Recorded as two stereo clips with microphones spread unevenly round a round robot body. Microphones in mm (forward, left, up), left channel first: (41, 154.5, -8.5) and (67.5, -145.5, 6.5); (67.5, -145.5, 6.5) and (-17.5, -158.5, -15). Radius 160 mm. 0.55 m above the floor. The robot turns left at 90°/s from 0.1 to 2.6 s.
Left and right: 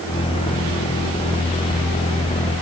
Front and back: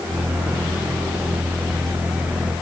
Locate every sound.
Only background noise.